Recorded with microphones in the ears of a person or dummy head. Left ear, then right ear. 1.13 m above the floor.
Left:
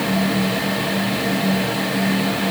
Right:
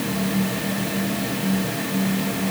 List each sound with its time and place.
Only background noise.